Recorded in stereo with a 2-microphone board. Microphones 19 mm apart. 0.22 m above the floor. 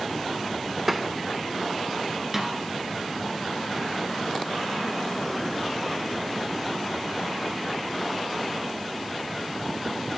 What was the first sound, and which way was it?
Tapping, 10° right (ahead or behind).